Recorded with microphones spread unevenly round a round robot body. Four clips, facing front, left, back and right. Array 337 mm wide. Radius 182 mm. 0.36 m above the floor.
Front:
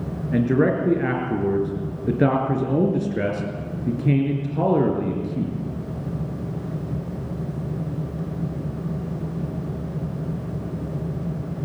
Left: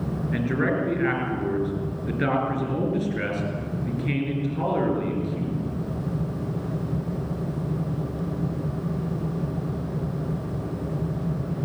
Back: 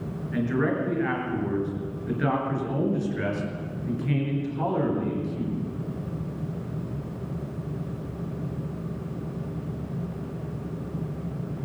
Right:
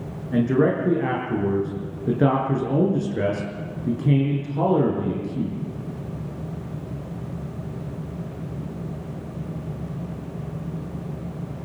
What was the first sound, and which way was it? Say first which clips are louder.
A man speaking: right 6 dB, front 6 dB; 30° right.